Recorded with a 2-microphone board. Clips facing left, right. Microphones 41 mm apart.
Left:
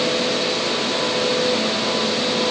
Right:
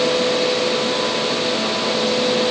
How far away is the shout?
No shout in this recording.